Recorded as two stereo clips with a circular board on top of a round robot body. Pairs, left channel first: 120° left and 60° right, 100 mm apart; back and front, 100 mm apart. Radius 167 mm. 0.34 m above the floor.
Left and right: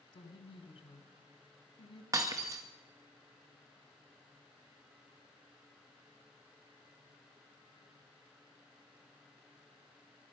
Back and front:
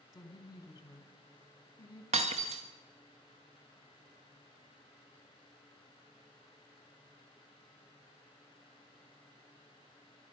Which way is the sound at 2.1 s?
Straight ahead.